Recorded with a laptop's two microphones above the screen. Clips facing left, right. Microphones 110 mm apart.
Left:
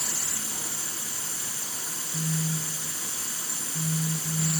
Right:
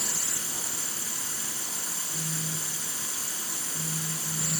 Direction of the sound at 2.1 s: 25° left (ahead or behind).